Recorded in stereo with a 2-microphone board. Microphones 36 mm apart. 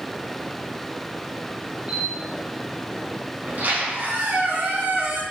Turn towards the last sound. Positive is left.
turn(degrees=-60)  # may be behind; listen again after turning